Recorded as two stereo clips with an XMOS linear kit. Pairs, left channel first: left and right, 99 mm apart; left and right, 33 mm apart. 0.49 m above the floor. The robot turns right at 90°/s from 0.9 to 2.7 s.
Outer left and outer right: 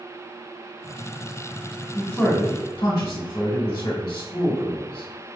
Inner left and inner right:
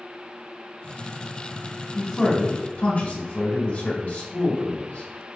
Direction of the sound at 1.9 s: 15° right.